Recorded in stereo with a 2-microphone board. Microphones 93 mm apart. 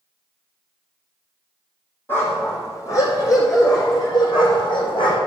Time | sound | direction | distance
2.1 | a dog barking | 25° left (ahead or behind) | 2.5 m